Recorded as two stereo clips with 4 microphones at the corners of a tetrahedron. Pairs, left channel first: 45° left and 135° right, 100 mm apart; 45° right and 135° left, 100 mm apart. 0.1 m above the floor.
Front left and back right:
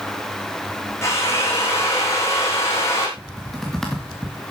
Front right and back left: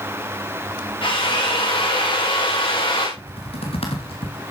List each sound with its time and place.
1.0 s a drill: 15° right, 5.5 m
3.2 s typing on a keyboard: 40° right, 4 m